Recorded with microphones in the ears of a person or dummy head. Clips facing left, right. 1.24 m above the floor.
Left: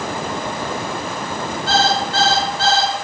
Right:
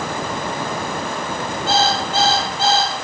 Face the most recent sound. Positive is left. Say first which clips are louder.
# left 1 dB
turn(degrees=-20)  # may be behind; listen again after turning